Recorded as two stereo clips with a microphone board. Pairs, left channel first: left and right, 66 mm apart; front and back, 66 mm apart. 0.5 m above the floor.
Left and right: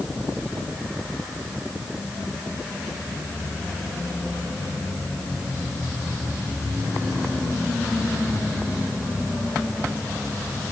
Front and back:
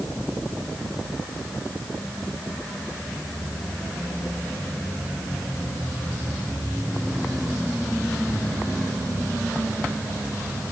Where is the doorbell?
I don't hear a doorbell.